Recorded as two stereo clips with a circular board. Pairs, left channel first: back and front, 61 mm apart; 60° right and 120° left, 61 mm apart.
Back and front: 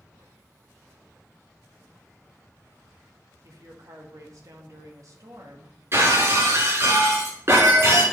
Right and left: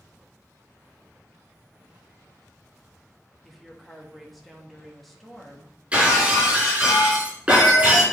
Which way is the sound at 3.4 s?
30° left.